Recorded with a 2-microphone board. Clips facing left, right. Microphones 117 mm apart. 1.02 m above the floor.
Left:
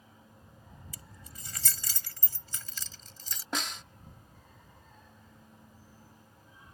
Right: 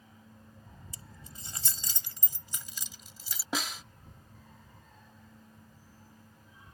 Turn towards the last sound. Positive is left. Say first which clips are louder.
# right 1 dB
turn(degrees=-5)  # may be behind; listen again after turning